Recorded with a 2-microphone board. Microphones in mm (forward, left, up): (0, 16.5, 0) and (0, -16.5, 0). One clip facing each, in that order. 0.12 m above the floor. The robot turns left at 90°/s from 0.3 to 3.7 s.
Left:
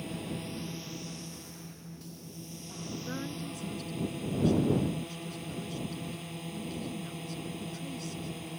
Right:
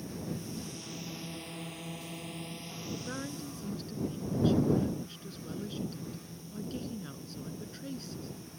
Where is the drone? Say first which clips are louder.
Left 2 dB; 60° left; by 8.6 s 115° left.